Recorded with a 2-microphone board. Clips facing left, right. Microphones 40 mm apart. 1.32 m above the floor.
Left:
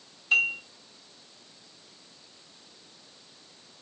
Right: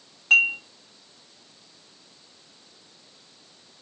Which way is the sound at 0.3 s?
80° right.